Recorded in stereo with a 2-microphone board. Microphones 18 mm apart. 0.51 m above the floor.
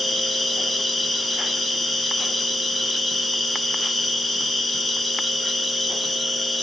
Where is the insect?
Centre (ahead or behind), 0.8 m.